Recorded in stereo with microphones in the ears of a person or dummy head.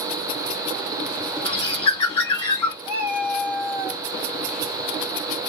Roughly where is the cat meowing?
Right.